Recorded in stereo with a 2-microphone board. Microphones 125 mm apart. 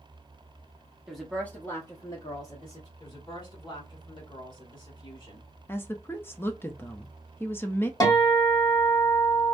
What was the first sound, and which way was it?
A woman speaking, 5° right (ahead or behind).